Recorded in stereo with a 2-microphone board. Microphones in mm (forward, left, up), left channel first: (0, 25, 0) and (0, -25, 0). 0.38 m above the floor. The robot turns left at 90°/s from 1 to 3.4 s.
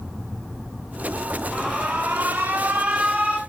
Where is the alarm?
15° left, 2.5 m; by 3.4 s 150° right, 2.5 m.